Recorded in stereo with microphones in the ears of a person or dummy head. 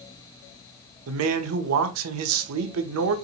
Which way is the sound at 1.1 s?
80° right.